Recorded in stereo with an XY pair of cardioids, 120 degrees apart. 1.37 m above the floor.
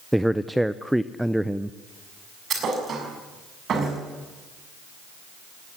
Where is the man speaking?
5° right, 0.6 m.